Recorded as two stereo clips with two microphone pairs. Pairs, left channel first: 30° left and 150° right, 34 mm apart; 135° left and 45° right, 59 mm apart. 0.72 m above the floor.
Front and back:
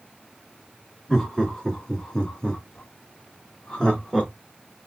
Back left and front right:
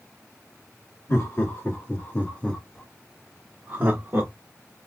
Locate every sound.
1.1 s laughter: 100° left, 1.5 m; by 4.3 s 35° right, 1.1 m